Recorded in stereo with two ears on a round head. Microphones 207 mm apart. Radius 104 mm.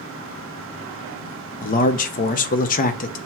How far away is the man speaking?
About 0.5 m.